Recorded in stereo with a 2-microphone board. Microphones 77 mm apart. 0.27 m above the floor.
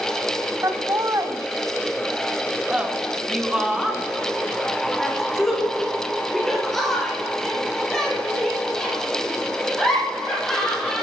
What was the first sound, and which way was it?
Laughter, 40° right (ahead or behind).